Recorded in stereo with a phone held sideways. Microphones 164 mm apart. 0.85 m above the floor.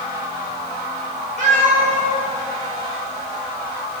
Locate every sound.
1.4 s a cat meowing: 50° right (ahead or behind), 1.5 m